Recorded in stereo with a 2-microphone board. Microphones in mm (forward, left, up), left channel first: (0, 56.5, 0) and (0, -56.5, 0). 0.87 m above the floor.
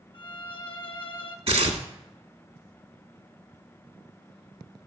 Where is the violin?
50° left (ahead or behind), 0.9 m.